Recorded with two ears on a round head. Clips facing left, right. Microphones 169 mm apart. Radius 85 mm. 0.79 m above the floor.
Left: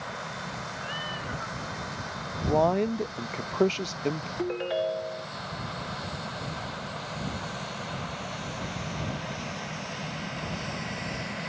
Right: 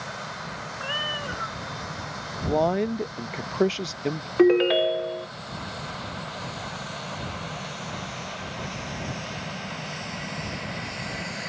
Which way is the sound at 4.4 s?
85° right.